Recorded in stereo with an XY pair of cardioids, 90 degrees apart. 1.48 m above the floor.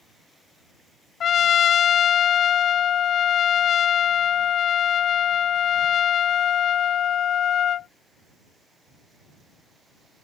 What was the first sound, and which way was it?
A trumpet, 70° left.